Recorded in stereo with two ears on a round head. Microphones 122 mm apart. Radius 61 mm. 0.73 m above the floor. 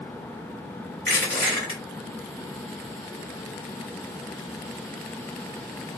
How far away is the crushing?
About 2 m.